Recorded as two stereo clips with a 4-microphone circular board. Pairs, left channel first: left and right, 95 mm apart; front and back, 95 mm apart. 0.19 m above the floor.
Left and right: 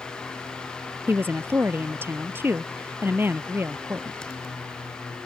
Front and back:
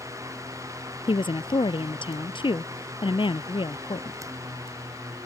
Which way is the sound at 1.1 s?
25° right.